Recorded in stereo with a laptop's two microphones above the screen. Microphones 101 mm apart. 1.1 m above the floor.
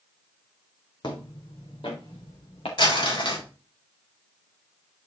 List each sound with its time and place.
1.0 s footsteps: 50° left (ahead or behind), 2.5 m; by 2.7 s 70° left (ahead or behind), 4.5 m
2.8 s crumpling: 55° left (ahead or behind), 4.5 m